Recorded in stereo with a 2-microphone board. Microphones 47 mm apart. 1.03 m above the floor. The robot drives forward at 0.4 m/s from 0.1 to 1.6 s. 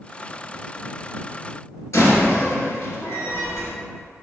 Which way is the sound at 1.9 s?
80° left.